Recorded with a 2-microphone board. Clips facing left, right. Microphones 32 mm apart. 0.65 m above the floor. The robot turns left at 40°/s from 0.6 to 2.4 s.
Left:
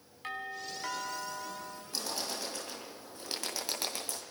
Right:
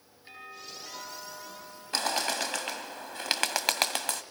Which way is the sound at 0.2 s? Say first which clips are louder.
Left 6 dB; 105° left.